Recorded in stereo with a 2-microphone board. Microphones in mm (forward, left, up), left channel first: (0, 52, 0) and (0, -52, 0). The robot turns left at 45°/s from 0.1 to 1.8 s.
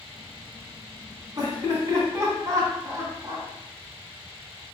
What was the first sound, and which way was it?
Laughter, 40° right (ahead or behind).